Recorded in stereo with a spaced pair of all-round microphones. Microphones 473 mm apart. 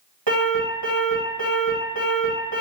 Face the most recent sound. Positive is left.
turn(degrees=-65)  # may be behind; listen again after turning